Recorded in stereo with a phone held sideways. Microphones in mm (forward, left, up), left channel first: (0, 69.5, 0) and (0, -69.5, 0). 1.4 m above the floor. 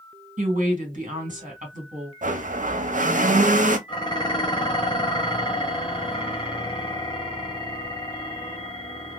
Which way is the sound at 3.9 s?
35° left (ahead or behind).